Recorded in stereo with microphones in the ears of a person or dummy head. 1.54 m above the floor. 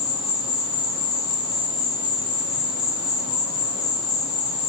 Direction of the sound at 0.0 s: 50° left (ahead or behind).